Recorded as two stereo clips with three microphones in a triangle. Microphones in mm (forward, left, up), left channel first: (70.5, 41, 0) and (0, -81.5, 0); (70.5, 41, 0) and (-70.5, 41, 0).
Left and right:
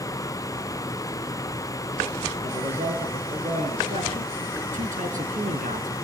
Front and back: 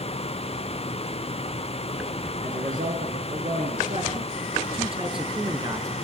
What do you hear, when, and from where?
2.4 s a man speaking: 160° right, 4 m; by 5.9 s 115° right, 2.5 m